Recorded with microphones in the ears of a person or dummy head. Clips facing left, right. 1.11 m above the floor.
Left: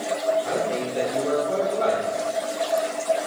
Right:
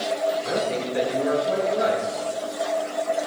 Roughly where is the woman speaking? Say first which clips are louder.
Even; right.